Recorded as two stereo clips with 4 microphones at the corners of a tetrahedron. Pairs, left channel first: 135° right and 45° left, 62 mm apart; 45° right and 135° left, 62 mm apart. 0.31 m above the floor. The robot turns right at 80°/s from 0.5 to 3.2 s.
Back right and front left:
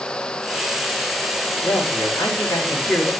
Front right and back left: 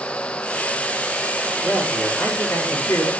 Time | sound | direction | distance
1.6 | a man speaking | 165° right | 6.5 m